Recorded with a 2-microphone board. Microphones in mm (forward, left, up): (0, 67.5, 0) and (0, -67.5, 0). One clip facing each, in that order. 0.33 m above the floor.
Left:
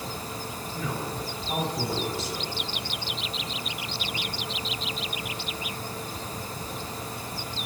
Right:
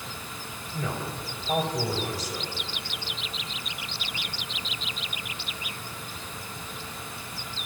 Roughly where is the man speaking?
Right.